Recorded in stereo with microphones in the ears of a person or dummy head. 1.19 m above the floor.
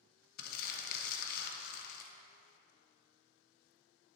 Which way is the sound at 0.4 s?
50° left (ahead or behind).